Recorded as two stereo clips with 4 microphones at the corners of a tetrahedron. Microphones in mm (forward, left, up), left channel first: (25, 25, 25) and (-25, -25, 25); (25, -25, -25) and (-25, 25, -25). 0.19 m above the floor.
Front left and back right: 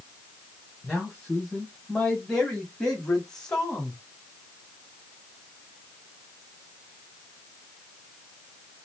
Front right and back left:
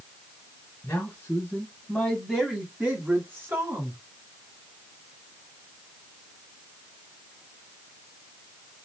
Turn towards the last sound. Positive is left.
turn(degrees=120)